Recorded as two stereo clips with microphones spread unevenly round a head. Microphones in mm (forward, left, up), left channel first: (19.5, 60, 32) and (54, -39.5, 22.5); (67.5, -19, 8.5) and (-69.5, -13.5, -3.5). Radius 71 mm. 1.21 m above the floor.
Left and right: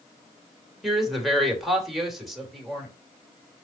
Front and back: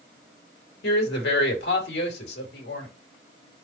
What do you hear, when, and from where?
0.8 s a woman speaking: 20° left, 3 m